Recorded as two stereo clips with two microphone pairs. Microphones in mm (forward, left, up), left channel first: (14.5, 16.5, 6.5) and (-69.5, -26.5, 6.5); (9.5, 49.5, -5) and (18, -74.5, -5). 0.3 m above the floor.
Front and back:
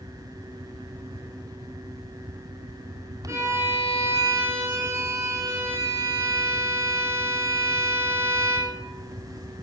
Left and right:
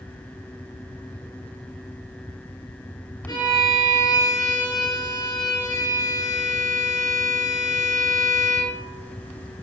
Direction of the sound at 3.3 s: 150° left.